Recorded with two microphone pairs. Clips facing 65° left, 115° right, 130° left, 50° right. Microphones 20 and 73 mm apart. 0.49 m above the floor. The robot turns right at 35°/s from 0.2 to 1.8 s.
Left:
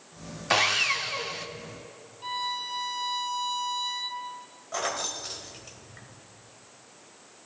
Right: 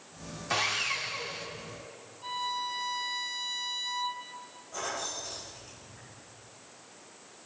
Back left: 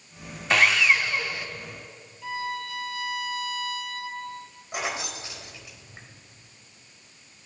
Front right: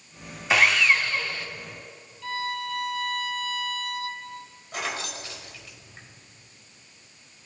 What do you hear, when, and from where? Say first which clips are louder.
0.5 s sawing: left 6 dB, even; 40° left, 0.7 m; by 1.5 s 70° left, 0.7 m
2.2 s a violin: left 2 dB, front right 1 dB; 85° left, 0.7 m
4.7 s keys jangling: left 5 dB, back left 1 dB; 60° left, 1.5 m